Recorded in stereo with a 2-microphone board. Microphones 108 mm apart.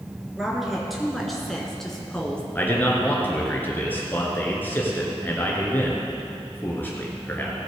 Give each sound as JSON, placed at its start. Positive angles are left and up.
{"t": 0.3, "sound": "a woman speaking", "side_deg": 0, "distance_m": 2.5}
{"t": 2.5, "sound": "a man speaking", "side_deg": 20, "distance_m": 2.5}